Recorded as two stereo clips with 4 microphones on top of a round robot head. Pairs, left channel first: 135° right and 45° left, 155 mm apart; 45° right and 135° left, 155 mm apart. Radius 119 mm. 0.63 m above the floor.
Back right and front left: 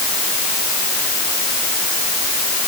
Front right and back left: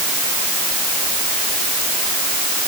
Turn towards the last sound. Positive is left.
No sound to turn to.